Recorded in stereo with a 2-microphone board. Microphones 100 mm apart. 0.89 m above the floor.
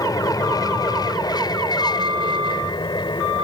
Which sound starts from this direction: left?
An aircraft, at 0.0 s.